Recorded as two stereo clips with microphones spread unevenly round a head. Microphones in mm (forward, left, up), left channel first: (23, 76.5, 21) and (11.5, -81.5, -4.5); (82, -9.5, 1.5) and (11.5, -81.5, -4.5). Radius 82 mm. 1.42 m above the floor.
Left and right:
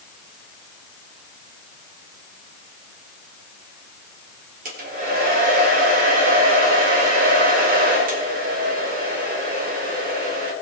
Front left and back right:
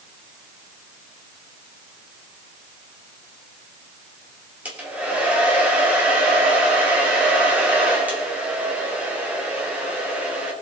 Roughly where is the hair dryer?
Ahead right.